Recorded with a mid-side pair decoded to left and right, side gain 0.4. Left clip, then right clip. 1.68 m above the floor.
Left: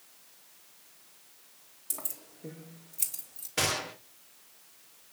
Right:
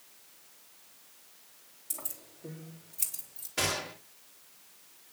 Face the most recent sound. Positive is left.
turn(degrees=35)